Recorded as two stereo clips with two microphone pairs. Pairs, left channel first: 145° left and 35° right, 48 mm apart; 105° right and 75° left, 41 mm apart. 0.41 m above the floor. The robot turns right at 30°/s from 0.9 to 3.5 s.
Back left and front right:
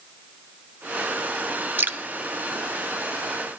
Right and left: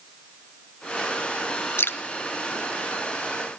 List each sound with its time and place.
1.8 s dripping: 85° right, 0.6 m; by 2.0 s 80° right, 0.6 m